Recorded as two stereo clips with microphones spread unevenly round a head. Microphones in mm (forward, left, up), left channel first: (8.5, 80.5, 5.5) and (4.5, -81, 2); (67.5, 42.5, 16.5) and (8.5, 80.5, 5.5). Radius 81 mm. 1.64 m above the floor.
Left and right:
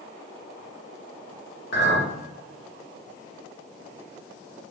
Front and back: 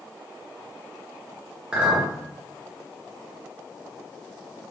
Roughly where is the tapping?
I don't hear tapping.